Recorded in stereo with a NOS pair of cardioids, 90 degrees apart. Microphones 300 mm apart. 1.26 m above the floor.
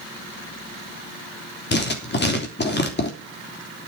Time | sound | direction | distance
1.7 | writing | 35° left | 3 m